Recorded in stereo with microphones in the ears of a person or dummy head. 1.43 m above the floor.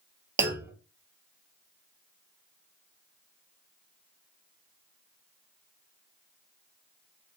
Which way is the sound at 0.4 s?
15° right (ahead or behind).